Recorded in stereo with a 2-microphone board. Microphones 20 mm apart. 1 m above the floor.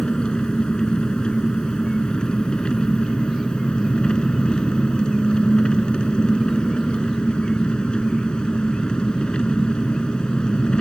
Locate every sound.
0.0 s an engine running: 50° left (ahead or behind)